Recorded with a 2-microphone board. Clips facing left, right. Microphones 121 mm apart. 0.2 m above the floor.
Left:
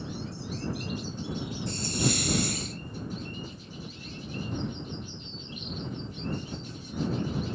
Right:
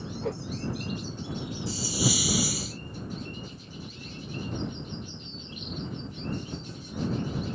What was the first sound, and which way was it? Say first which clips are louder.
A whoosh: right 8 dB; 85° right.